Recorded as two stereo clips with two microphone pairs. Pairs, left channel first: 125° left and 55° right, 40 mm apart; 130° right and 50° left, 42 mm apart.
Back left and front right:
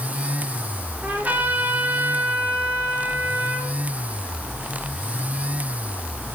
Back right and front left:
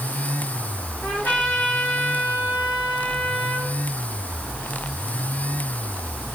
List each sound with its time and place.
1.0 s a trumpet: 95° right, 3 m